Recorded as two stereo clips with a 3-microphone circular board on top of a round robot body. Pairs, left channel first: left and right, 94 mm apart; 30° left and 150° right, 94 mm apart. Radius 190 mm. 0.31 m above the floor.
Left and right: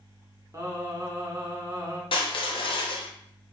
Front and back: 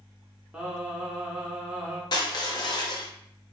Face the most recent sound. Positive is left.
turn(degrees=70)